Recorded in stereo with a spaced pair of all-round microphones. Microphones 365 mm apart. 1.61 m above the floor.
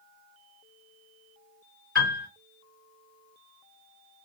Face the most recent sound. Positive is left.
turn(degrees=-35)  # may be behind; listen again after turning